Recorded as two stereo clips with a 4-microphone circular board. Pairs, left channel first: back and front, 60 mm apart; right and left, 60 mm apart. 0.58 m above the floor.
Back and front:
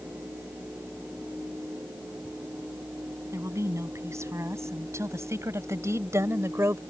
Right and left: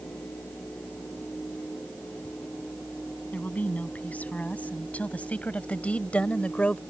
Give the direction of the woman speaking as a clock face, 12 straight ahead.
1 o'clock.